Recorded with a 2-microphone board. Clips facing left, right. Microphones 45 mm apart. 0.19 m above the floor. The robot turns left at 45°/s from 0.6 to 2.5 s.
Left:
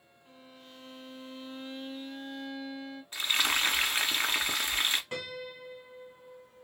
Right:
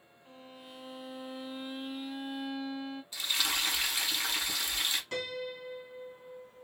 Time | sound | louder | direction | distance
0.2 | a violin | right 3 dB | 20° right (ahead or behind) | 1.8 m
3.1 | frying | left 5 dB | 45° left (ahead or behind) | 0.7 m
5.1 | a piano | right 2 dB | 20° left (ahead or behind) | 1.8 m